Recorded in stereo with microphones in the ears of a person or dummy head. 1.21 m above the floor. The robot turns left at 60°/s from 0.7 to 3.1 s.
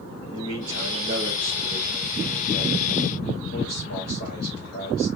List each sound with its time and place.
0.3 s a man speaking: 85° right, 5.5 m; by 5.1 s 130° left, 5.5 m